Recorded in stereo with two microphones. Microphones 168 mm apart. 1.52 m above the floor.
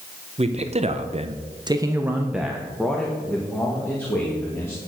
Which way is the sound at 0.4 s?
40° right (ahead or behind).